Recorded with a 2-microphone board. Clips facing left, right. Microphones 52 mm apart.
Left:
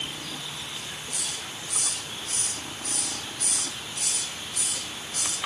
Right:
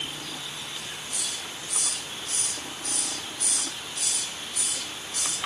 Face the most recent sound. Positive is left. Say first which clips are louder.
# even
turn(degrees=55)  # may be behind; listen again after turning